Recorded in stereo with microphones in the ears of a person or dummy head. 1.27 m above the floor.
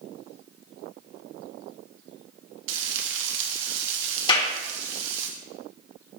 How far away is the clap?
About 3 m.